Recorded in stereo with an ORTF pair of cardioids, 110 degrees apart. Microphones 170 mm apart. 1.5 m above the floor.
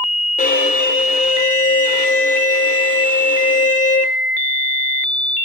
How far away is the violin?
About 3 m.